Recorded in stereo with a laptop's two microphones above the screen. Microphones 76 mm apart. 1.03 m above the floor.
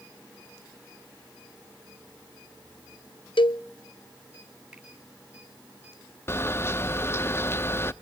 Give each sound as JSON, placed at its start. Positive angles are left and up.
{"t": 3.4, "sound": "a cowbell", "side_deg": 85, "distance_m": 0.7}
{"t": 4.7, "sound": "a finger snap", "side_deg": -10, "distance_m": 4.0}
{"t": 6.3, "sound": "a camera shutter", "side_deg": 30, "distance_m": 0.5}